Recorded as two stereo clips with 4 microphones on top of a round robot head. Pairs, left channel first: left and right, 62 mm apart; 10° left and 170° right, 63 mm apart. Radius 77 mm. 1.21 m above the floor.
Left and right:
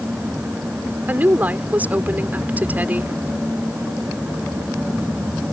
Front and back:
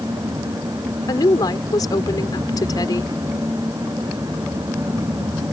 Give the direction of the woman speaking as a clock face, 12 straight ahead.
1 o'clock.